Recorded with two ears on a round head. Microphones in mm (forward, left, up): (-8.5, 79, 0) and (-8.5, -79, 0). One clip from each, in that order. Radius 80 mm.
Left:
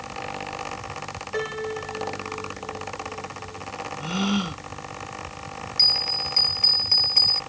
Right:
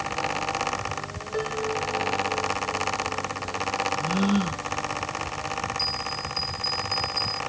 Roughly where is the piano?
Left.